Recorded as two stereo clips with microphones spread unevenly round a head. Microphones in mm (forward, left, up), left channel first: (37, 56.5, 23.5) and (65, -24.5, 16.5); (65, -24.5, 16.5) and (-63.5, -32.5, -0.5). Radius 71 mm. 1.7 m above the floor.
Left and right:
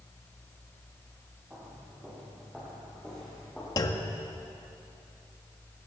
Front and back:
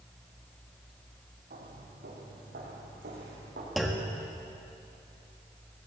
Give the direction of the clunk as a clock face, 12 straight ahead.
9 o'clock.